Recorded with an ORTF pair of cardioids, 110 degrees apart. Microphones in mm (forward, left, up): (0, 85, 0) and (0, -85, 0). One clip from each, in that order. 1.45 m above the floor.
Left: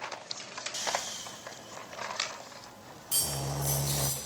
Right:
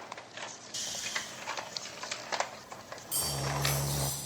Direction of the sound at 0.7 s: 5° left.